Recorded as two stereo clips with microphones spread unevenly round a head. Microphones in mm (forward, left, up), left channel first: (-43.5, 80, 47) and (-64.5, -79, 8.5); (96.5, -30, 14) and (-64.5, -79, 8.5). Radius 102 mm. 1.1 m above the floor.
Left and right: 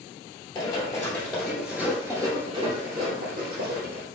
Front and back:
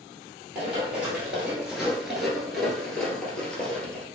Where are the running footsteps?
115° left, 1.4 m; by 4.0 s 65° right, 1.6 m.